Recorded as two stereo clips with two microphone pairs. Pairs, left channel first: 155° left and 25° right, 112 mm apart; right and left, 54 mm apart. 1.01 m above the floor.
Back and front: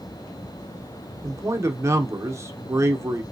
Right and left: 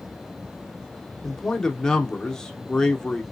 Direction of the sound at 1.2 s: 30° right.